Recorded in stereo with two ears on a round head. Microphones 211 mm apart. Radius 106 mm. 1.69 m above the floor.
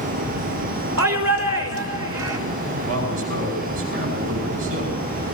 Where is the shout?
85° right, 5 m.